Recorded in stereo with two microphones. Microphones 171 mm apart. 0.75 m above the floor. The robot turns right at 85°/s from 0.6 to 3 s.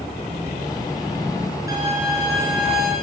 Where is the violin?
160° right, 5.5 m; by 2.9 s 55° right, 5.5 m.